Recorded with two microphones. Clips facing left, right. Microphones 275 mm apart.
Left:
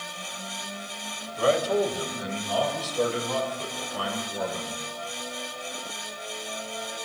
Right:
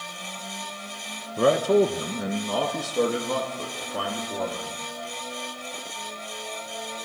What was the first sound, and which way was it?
A man speaking, 55° right (ahead or behind).